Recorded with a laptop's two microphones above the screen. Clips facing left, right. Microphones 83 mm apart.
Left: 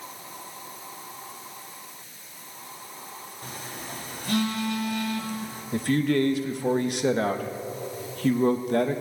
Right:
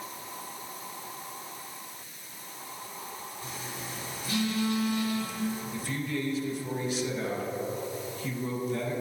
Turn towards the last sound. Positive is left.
turn(degrees=65)  # may be behind; listen again after turning